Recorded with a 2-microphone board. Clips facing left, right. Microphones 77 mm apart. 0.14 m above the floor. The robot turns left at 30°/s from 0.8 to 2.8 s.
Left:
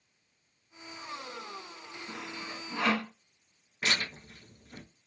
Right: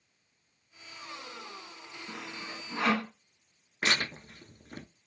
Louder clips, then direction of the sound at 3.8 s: Right 2 dB; 50° right (ahead or behind).